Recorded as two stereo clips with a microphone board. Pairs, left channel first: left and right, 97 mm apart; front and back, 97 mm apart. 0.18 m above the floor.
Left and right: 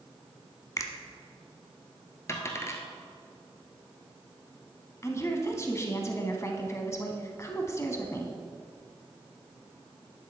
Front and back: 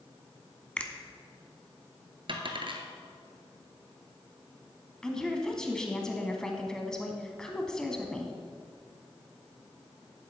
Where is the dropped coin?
150° left, 1.2 m.